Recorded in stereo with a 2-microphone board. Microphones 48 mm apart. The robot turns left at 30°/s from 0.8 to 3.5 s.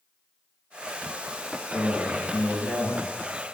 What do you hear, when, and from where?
1.7 s a man speaking: 100° left, 1.9 m; by 3.0 s 60° left, 1.9 m